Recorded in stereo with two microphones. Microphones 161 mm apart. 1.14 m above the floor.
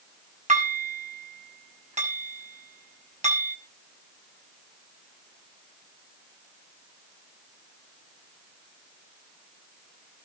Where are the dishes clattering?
50° right (ahead or behind), 6 m.